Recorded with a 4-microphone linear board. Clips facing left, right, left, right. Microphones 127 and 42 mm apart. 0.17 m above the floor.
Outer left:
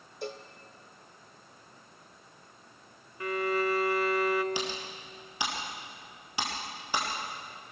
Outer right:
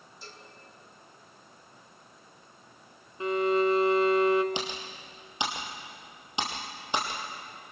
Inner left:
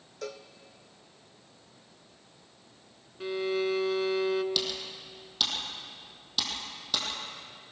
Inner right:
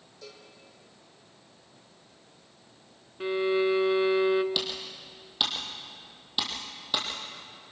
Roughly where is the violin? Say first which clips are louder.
Outer right 5 dB, inner right 4 dB; right.